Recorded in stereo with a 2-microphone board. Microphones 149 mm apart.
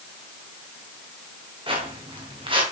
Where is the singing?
I don't hear singing.